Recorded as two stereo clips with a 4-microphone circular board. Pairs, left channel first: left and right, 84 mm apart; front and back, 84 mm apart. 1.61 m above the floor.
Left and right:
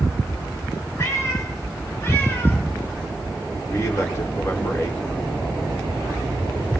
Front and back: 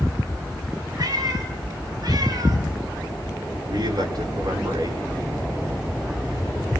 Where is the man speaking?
145° left, 6 m.